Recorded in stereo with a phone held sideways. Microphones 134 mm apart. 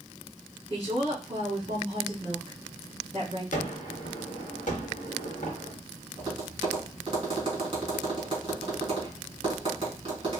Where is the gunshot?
70° left (ahead or behind), 1.4 m.